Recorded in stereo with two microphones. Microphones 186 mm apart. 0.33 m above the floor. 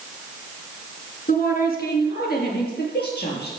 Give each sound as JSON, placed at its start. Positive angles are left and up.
{"t": 1.3, "sound": "a woman speaking", "side_deg": 50, "distance_m": 4.0}